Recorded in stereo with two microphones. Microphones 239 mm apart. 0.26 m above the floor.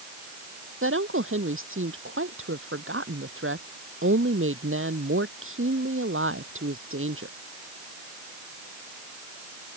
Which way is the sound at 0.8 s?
65° right (ahead or behind).